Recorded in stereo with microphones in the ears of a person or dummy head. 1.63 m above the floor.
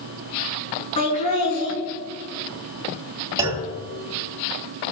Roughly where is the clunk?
Right.